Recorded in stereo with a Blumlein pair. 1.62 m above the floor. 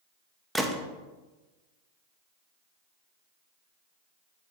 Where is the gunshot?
Straight ahead, 0.7 m.